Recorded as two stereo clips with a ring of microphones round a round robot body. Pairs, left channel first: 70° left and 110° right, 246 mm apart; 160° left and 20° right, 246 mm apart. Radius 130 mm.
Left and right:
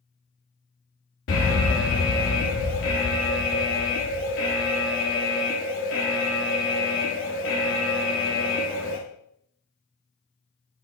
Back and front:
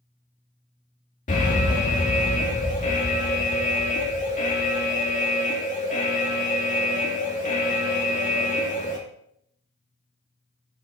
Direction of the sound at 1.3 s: 100° left.